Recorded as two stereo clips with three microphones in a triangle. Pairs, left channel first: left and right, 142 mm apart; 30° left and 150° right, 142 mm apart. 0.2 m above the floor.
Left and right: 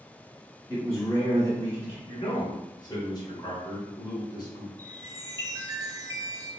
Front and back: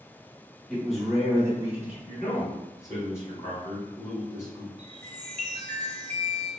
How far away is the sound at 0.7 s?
About 1.3 m.